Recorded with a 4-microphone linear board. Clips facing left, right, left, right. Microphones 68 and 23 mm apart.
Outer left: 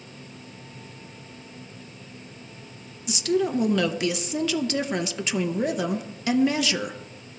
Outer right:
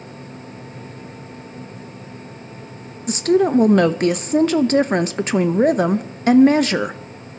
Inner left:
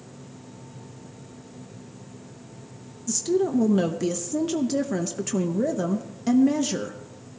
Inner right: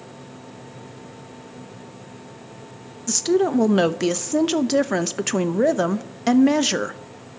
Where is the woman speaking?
45° right (ahead or behind), 0.6 m.